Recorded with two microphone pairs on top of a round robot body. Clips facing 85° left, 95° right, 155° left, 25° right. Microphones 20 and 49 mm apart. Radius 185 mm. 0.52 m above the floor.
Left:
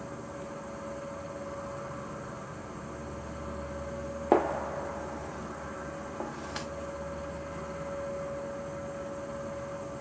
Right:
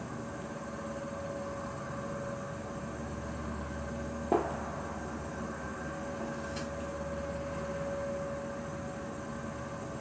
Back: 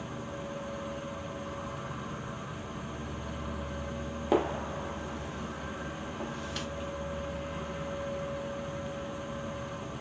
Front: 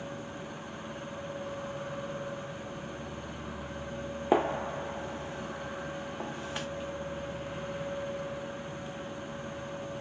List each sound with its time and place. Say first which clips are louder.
0.0 s an insect: even, back 1 dB; 80° right, 1.9 m
4.3 s a gunshot: left 5 dB, front 1 dB; 40° left, 0.5 m